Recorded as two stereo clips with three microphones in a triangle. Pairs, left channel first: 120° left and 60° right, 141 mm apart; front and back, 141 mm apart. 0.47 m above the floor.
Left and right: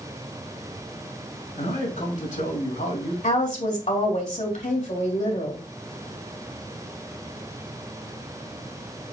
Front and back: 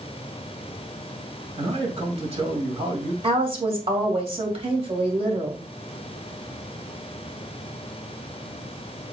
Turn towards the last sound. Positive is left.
turn(degrees=140)